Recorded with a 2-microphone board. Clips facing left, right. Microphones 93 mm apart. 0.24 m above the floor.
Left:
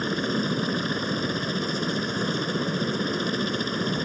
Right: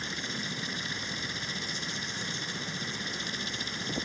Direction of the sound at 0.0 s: 55° left (ahead or behind).